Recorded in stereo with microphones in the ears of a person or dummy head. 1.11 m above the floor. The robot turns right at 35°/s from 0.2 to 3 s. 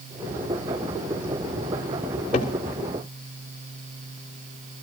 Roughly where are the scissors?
I don't hear scissors.